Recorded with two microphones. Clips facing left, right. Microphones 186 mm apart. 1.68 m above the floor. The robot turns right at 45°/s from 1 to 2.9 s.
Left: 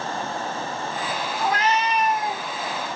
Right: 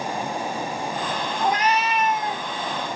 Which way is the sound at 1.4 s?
30° right.